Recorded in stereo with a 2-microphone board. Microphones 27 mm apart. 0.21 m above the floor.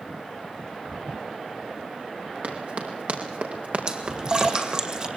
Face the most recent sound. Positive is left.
turn(degrees=-30)  # may be behind; listen again after turning